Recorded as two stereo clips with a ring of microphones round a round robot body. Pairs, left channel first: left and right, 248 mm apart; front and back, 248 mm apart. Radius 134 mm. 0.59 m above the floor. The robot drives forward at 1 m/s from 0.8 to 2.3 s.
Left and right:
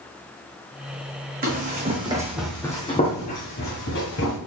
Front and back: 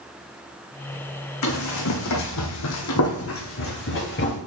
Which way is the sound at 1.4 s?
30° right.